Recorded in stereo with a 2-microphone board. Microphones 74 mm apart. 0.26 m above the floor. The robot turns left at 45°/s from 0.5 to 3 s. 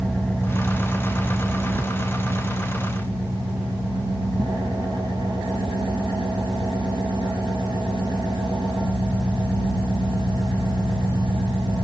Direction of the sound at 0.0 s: 15° left.